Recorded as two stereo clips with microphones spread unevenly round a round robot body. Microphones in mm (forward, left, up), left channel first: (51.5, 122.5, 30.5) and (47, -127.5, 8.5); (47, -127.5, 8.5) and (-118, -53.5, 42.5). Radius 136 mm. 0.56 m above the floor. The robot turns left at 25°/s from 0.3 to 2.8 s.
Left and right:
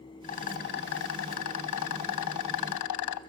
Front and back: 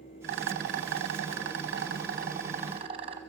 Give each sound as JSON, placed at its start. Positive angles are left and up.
{"t": 0.2, "sound": "a rattle", "azimuth_deg": 150, "distance_m": 0.8}